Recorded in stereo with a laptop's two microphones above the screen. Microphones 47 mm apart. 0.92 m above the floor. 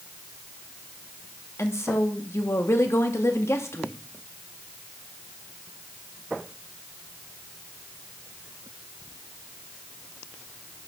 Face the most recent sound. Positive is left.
turn(degrees=70)  # may be behind; listen again after turning